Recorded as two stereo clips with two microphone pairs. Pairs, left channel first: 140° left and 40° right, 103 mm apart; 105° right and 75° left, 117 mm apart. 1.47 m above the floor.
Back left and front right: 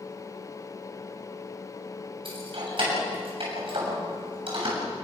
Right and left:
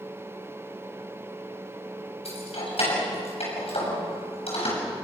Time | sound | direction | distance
2.2 | keys jangling | 70° right | 7.5 m